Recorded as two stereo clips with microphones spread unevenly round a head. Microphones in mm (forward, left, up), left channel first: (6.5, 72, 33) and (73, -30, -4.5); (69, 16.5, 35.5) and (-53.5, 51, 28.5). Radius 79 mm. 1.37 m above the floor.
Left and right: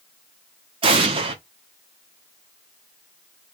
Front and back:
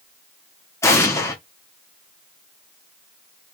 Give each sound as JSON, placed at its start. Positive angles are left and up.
{"t": 0.8, "sound": "an explosion", "azimuth_deg": -85, "distance_m": 0.8}